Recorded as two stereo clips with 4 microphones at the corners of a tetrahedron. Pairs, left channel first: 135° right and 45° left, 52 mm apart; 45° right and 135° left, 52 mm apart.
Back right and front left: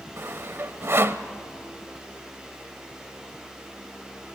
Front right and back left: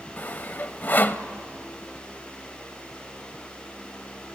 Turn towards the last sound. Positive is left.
turn(degrees=10)